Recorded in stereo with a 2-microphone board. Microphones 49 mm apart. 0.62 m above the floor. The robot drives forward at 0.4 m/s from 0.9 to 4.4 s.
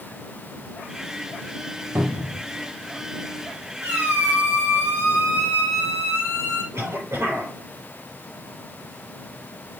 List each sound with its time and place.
1.9 s a cupboard door: 55° right (ahead or behind), 1.2 m; by 2.4 s 60° right (ahead or behind), 1.2 m
3.8 s a squeak: 80° right, 4 m; by 6.6 s 85° right, 4 m
6.7 s a cough: 65° right (ahead or behind), 3.5 m